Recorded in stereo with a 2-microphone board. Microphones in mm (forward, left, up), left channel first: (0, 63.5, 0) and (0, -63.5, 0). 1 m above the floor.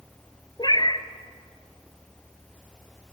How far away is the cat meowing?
About 1.2 m.